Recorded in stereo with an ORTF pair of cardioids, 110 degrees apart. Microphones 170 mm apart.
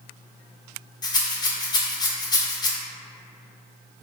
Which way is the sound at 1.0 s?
25° left.